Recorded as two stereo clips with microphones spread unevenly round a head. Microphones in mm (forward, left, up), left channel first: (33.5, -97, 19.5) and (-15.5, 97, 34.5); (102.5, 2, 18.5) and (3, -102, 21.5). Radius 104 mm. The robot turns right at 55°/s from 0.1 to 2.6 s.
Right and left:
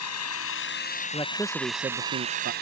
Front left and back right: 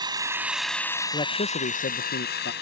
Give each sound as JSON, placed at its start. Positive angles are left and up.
{"t": 0.0, "sound": "an engine running", "azimuth_deg": -75}
{"t": 1.1, "sound": "a man speaking", "azimuth_deg": -10}